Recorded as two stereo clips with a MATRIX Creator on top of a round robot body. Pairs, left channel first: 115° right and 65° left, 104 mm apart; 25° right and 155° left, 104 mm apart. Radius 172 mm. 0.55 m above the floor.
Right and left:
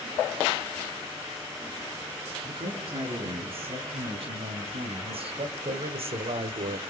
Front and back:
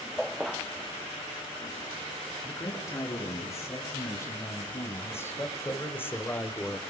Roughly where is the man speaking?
Ahead left.